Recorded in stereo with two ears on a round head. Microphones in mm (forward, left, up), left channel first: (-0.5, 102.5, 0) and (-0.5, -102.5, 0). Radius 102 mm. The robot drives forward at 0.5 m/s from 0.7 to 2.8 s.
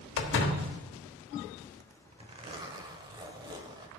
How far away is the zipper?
About 0.6 m.